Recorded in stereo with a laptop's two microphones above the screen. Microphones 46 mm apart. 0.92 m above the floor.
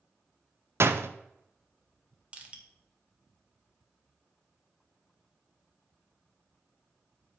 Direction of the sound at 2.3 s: 25° right (ahead or behind).